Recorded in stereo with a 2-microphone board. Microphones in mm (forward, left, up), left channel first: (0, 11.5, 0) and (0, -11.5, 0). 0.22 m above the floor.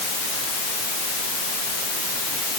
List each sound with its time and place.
Only background noise.